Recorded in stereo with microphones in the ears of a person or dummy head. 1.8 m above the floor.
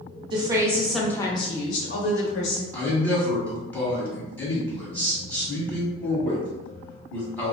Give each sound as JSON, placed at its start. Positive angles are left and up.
{"t": 0.3, "sound": "a woman speaking", "side_deg": -30, "distance_m": 0.7}
{"t": 2.7, "sound": "a man speaking", "side_deg": 5, "distance_m": 1.4}